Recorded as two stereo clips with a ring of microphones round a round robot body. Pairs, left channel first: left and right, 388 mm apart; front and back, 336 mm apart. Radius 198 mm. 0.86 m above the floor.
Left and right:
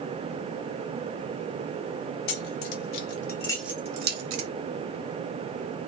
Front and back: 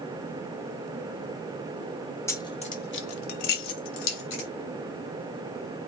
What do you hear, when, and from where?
2.3 s keys jangling: 80° left, 0.8 m; by 4.5 s 40° right, 0.8 m